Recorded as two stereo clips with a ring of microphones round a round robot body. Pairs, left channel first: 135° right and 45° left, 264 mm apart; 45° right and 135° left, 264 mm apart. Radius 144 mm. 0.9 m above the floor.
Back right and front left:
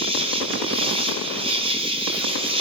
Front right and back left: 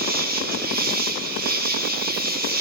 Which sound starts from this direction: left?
An insect, at 0.0 s.